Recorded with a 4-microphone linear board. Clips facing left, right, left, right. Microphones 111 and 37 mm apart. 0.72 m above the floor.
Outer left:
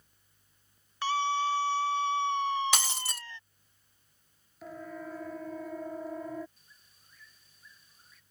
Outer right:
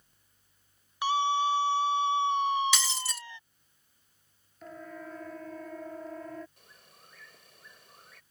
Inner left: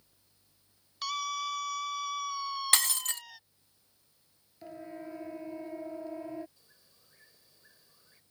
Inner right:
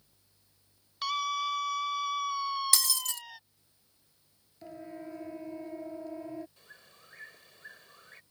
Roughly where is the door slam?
No door slam in this recording.